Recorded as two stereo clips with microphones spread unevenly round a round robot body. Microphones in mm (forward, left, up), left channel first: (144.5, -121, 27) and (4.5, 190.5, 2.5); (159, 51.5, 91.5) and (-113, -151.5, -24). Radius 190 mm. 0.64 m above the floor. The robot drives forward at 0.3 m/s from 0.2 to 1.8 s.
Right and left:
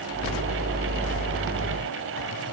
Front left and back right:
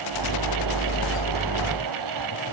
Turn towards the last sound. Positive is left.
No sound to turn to.